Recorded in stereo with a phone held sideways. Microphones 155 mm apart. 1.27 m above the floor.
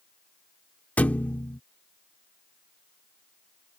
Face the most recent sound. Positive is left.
turn(degrees=10)  # may be behind; listen again after turning